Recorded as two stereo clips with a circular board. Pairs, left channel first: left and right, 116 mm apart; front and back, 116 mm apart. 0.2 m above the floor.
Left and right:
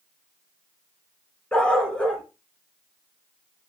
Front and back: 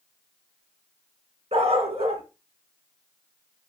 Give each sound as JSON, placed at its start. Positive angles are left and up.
{"t": 1.5, "sound": "a dog barking", "azimuth_deg": 170, "distance_m": 0.8}